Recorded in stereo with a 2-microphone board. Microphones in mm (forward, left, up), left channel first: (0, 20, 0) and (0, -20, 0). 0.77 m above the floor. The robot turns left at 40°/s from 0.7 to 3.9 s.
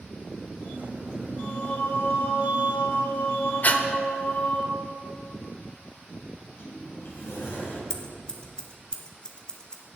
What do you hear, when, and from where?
1.4 s singing: 145° left, 2 m; by 4.6 s 45° left, 2 m
3.6 s breathing: 40° left (ahead or behind), 0.8 m; by 3.8 s 35° left (ahead or behind), 0.8 m
6.3 s a sliding door: 70° left (ahead or behind), 4 m
7.9 s scissors: 20° left (ahead or behind), 1.1 m